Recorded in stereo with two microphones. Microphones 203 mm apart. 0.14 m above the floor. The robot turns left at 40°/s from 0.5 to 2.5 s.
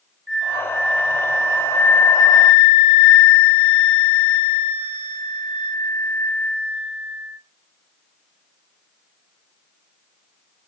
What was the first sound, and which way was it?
A flute, 65° right.